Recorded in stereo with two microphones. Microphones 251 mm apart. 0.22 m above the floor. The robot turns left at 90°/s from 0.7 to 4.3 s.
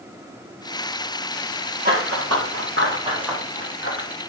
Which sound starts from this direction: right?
Running footsteps, at 1.9 s.